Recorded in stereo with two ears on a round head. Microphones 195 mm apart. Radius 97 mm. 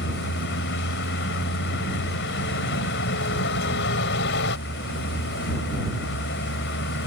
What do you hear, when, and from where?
0.0 s a vehicle: 60° left (ahead or behind)